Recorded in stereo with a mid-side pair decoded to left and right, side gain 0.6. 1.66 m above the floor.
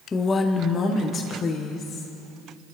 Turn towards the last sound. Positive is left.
turn(degrees=50)